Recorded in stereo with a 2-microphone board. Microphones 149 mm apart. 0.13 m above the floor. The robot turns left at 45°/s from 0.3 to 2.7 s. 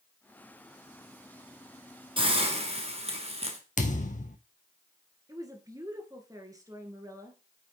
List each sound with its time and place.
2.2 s a hiss: 35° right (ahead or behind), 1.5 m; by 3.6 s 45° right (ahead or behind), 1.5 m
3.8 s a thud: 55° left (ahead or behind), 1.0 m
5.3 s a woman speaking: 25° right (ahead or behind), 1.9 m